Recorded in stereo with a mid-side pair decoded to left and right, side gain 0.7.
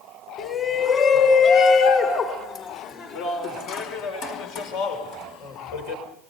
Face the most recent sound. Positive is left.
turn(degrees=80)